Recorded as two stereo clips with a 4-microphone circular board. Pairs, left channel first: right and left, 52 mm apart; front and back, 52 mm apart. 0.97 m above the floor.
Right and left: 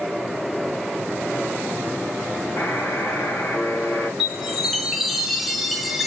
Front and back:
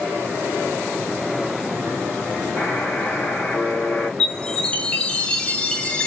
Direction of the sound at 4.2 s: 5° left.